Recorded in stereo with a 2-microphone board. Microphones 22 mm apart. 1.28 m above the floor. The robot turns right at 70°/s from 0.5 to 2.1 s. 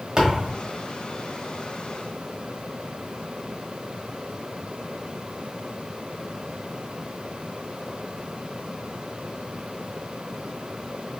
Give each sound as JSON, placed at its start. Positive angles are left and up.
{"t": 0.2, "sound": "a thud", "side_deg": -40, "distance_m": 1.6}